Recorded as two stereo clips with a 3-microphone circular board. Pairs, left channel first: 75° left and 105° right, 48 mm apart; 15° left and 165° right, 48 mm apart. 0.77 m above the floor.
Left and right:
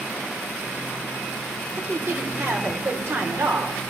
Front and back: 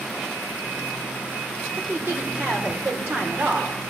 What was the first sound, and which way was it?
A woman speaking, 120° right.